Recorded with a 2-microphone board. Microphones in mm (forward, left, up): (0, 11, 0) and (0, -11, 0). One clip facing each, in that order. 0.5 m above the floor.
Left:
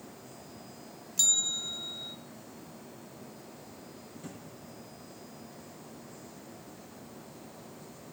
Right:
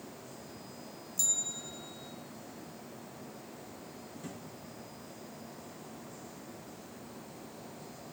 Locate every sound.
1.2 s a bell: 50° left (ahead or behind), 0.5 m
4.2 s a drawer: 5° right (ahead or behind), 3 m